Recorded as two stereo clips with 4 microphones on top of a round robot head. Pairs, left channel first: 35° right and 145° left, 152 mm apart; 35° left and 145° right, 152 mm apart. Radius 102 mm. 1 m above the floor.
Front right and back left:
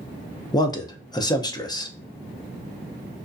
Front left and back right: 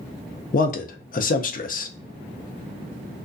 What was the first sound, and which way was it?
A man speaking, 25° left.